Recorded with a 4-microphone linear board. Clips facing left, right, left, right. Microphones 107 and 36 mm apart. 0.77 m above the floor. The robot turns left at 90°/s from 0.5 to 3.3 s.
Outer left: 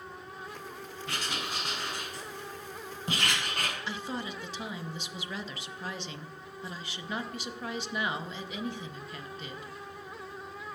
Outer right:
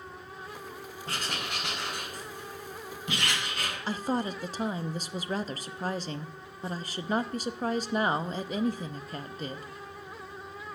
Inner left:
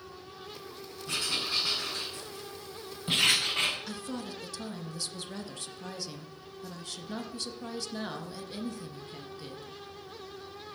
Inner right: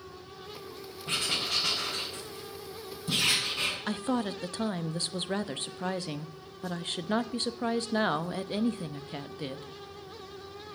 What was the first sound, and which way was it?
Writing, 35° right (ahead or behind).